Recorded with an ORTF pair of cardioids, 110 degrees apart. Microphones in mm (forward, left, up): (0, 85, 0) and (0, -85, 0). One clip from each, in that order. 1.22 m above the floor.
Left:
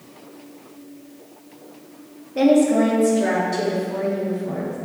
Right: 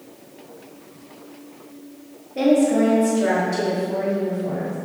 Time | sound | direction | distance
2.4 | a woman speaking | 20° left | 1.9 m